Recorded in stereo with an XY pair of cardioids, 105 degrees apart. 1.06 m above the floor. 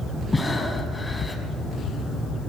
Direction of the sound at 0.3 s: 20° left.